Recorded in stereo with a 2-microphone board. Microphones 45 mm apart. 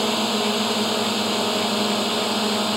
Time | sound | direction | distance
0.0 | a drone | 5° right (ahead or behind) | ?